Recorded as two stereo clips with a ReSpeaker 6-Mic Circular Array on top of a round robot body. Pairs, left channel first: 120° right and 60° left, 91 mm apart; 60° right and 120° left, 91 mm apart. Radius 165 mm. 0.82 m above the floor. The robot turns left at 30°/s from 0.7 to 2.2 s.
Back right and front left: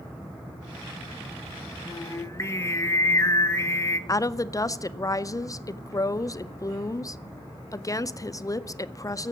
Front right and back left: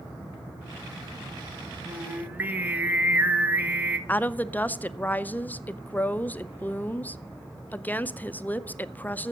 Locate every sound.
1.9 s singing: 160° right, 1.3 m; by 4.0 s 175° right, 1.3 m
4.1 s a woman speaking: 115° right, 0.7 m